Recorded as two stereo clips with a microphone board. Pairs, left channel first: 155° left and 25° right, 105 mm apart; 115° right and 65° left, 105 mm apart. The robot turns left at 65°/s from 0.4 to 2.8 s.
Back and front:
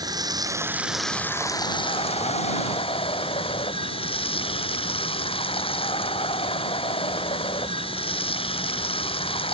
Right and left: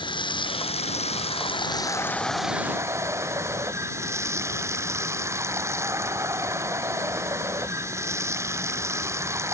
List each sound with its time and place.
0.0 s running water: 75° right; by 9.5 s 130° left